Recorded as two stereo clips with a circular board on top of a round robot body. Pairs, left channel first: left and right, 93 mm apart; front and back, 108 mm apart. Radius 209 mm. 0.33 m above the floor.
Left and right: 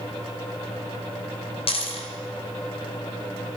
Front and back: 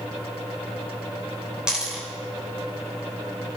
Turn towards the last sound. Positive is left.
turn(degrees=95)